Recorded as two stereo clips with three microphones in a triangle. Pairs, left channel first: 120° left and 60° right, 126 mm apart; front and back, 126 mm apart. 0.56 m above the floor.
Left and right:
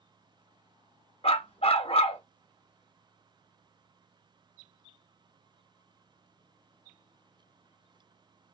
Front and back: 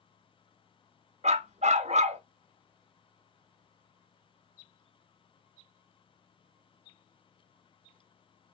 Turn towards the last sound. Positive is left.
turn(degrees=155)